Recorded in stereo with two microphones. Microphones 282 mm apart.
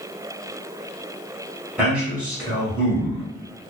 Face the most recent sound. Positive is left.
turn(degrees=-5)  # may be behind; listen again after turning